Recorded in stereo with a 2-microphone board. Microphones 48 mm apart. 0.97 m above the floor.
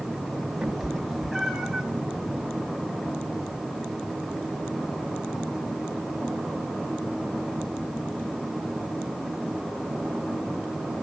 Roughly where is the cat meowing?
Centre.